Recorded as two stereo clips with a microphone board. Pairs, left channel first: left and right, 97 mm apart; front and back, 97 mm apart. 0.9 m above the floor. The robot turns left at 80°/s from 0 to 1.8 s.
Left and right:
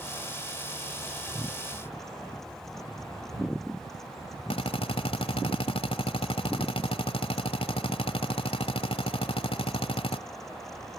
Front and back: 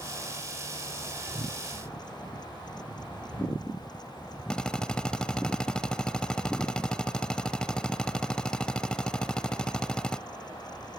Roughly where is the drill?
Left.